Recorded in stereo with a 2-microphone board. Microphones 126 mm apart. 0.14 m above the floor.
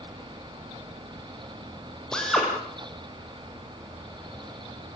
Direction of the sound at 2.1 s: 5° left (ahead or behind).